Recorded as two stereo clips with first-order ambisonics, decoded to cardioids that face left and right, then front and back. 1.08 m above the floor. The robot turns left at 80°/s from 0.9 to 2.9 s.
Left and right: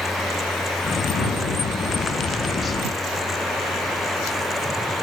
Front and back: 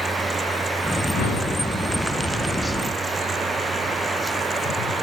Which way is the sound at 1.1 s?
40° left.